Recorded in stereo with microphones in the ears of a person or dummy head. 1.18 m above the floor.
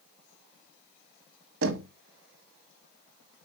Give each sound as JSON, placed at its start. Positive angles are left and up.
{"t": 1.6, "sound": "knocking", "side_deg": -80, "distance_m": 1.2}